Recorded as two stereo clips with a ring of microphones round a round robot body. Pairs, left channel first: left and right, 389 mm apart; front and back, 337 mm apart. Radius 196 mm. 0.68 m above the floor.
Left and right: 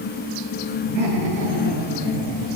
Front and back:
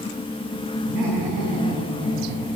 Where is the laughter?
105° right, 10 m; by 2.6 s 95° right, 9 m.